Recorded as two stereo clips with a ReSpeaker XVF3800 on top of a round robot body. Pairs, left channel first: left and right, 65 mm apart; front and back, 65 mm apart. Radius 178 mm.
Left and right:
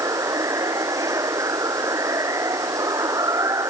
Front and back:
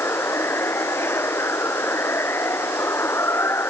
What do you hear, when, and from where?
0.0 s running water: 55° right